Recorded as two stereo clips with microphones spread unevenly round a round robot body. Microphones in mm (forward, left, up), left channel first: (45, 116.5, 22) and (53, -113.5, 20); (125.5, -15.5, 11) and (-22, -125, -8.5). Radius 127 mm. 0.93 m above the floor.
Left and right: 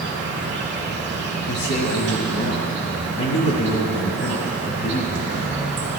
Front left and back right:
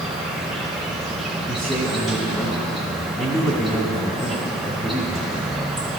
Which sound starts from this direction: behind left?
A man speaking, at 1.5 s.